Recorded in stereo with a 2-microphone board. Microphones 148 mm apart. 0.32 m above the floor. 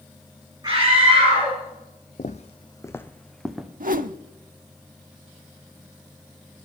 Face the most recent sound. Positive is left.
turn(degrees=-70)  # may be behind; listen again after turning